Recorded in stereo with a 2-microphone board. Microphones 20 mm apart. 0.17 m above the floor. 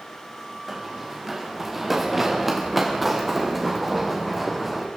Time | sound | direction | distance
0.7 | running footsteps | 15° right (ahead or behind) | 4 m